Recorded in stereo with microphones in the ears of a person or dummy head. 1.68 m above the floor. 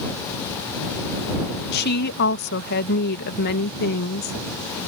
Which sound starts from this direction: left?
A woman speaking, at 1.7 s.